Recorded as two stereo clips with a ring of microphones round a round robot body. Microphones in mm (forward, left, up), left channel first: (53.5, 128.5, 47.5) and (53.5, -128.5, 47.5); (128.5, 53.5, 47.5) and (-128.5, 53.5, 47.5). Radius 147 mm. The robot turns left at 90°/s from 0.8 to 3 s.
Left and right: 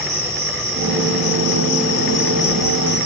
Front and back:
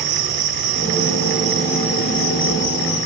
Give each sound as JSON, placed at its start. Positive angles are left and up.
{"t": 0.0, "sound": "an insect", "azimuth_deg": 180, "distance_m": 3.0}